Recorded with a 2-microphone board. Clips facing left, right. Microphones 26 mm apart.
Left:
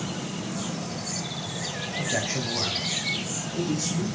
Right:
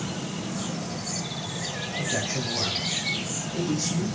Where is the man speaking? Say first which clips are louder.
Left 1 dB; 35° left (ahead or behind), 1.3 m; by 4.1 s 25° right (ahead or behind), 1.4 m.